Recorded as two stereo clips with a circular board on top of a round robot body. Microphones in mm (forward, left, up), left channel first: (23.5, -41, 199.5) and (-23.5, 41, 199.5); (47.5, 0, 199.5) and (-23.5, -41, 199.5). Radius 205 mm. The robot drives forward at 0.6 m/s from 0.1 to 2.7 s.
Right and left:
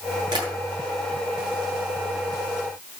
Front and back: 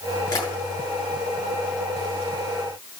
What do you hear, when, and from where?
0.3 s tapping: 75° left, 9 m